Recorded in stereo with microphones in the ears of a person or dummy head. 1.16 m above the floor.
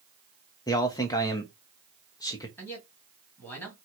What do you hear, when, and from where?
0.7 s a man speaking: 25° left (ahead or behind), 0.6 m
2.6 s a man speaking: 10° left (ahead or behind), 1.7 m